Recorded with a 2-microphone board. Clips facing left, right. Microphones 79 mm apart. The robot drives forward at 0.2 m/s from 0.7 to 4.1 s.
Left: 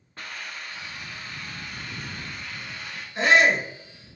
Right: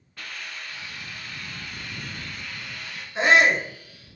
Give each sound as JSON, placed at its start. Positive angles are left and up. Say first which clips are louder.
{"t": 0.2, "sound": "a hiss", "louder": "left 1 dB", "side_deg": 30, "distance_m": 1.1}
{"t": 3.1, "sound": "a shout", "louder": "right 1 dB", "side_deg": -25, "distance_m": 1.3}